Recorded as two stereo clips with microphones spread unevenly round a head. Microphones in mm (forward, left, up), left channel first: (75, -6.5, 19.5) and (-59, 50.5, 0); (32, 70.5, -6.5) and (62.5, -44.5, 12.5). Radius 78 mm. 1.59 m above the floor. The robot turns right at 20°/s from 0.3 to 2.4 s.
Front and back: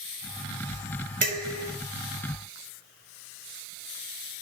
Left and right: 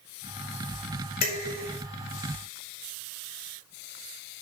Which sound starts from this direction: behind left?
Dishes clattering, at 1.2 s.